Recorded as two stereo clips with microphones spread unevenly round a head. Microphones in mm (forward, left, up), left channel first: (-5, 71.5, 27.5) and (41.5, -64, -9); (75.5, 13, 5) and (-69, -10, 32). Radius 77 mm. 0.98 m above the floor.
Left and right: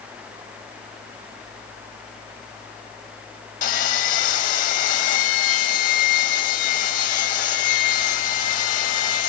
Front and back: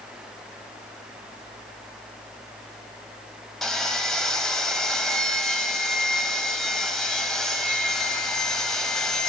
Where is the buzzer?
No buzzer in this recording.